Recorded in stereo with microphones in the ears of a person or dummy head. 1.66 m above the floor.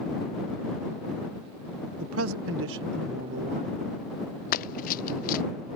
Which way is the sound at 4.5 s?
50° left (ahead or behind).